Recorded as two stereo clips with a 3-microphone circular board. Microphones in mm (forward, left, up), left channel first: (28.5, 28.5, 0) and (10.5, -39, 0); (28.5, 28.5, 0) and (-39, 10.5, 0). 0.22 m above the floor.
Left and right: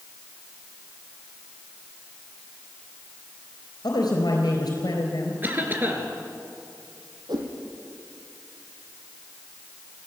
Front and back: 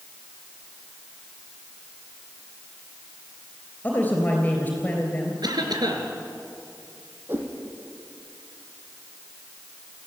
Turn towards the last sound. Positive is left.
turn(degrees=-105)